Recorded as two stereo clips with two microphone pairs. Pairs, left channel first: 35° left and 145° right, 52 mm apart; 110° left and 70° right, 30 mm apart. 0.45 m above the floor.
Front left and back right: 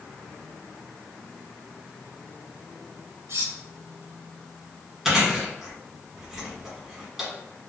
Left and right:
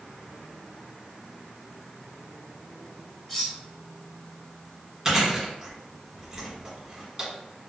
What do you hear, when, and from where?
3.3 s cutlery clinking: 165° right, 1.1 m
5.0 s chewing: 70° right, 1.4 m